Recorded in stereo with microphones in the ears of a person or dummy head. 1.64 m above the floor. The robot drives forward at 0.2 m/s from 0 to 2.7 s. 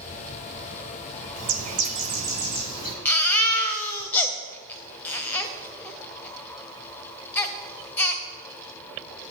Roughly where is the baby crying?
Centre.